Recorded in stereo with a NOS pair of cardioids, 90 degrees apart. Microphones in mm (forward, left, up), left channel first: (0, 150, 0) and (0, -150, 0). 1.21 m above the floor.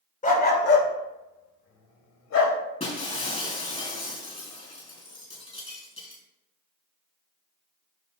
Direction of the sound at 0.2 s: 25° left.